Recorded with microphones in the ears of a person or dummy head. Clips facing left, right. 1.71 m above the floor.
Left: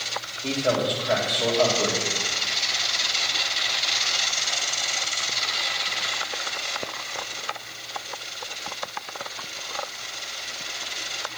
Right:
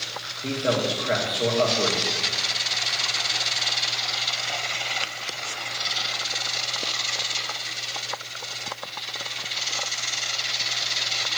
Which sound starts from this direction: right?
A man speaking, at 0.4 s.